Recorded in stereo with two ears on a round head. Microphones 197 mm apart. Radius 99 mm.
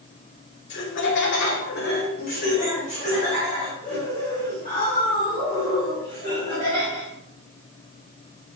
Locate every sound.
0.7 s laughter: 55° left (ahead or behind), 1.9 m; by 7.1 s 15° left (ahead or behind), 8 m